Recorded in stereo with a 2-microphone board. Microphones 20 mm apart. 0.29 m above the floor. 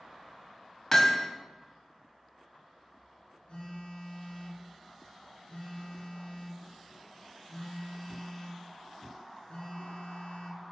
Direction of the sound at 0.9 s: 20° left (ahead or behind).